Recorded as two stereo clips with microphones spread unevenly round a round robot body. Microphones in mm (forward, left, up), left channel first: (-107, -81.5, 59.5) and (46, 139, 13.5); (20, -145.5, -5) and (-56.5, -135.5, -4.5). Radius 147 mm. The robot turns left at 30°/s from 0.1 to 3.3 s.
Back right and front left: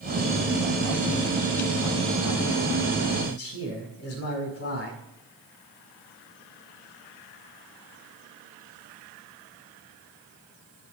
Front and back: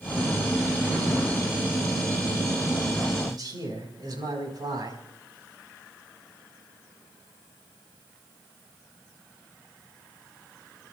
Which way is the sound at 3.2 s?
160° right.